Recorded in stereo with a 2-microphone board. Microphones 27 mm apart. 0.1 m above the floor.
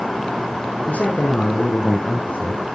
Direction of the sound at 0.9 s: 60° left (ahead or behind).